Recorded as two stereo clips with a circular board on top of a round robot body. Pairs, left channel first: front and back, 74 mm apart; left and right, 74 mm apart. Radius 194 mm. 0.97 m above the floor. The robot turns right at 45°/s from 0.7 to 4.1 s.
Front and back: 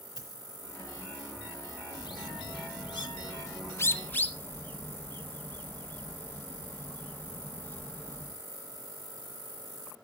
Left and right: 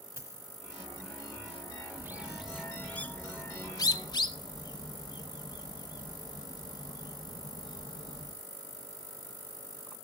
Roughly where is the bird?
Ahead right.